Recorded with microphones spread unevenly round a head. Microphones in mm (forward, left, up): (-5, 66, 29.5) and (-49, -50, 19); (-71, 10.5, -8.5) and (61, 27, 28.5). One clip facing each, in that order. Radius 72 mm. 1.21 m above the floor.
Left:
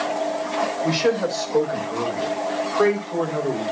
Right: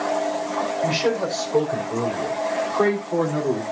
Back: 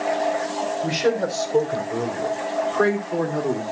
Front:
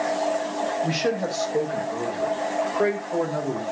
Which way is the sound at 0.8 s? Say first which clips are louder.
Left 2 dB, back 3 dB; 175° left.